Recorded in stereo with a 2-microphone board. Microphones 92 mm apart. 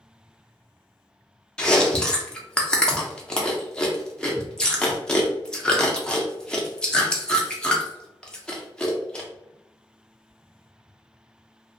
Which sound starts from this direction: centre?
Chewing, at 1.6 s.